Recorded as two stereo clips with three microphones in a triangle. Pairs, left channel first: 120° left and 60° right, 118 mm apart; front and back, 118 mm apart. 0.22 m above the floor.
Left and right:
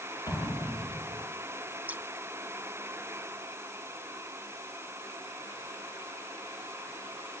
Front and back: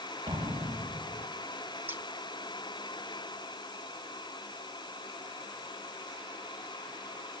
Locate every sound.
0.3 s an explosion: 125° right, 7 m
1.9 s scissors: 125° right, 0.6 m